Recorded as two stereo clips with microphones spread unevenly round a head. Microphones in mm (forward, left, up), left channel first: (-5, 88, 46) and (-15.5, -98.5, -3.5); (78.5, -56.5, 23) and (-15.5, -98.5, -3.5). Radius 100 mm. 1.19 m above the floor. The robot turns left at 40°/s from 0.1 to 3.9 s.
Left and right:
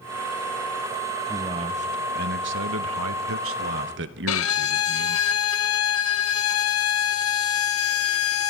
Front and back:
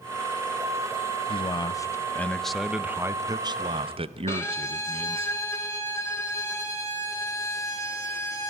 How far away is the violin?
About 1.2 m.